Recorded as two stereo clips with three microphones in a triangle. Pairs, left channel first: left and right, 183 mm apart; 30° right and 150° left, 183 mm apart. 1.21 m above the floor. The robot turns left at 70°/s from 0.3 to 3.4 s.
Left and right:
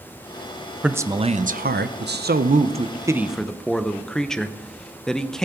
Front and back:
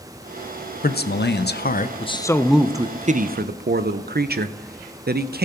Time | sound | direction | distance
0.8 | a man speaking | 5° right | 0.6 m